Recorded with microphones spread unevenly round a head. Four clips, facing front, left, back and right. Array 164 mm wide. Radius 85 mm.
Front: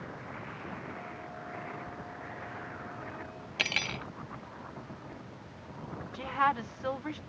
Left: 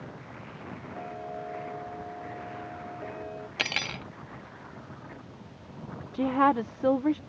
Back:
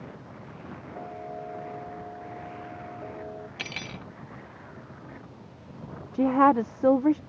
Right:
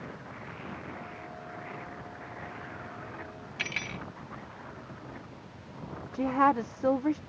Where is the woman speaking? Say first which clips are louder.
Left 1 dB, back 10 dB; 170° left.